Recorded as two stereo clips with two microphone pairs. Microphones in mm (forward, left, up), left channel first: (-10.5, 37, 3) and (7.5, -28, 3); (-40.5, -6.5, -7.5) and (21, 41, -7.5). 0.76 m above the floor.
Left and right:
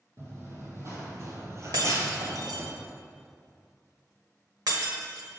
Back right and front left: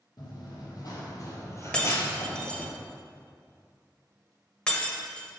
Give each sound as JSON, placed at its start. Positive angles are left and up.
{"t": 0.2, "sound": "running footsteps", "azimuth_deg": -120, "distance_m": 1.9}
{"t": 1.7, "sound": "breaking glass", "azimuth_deg": -65, "distance_m": 1.0}